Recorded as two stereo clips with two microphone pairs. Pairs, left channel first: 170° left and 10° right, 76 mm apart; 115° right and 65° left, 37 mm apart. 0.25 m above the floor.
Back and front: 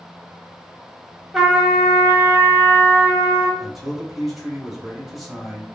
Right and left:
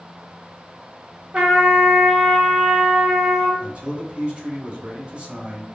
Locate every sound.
1.3 s a trumpet: 65° left, 0.8 m
3.6 s a man speaking: 80° left, 1.0 m